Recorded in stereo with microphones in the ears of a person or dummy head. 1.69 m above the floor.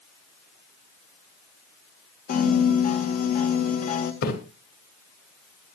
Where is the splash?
55° left (ahead or behind), 3 m.